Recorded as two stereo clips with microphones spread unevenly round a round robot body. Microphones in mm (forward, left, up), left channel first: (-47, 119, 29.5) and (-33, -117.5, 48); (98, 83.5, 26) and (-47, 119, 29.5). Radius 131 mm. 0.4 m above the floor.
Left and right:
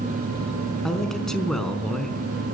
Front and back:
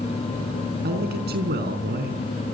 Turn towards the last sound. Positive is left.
turn(degrees=180)